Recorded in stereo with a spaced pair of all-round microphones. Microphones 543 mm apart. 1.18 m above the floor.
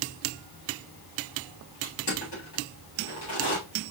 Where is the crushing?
50° left (ahead or behind), 3 m.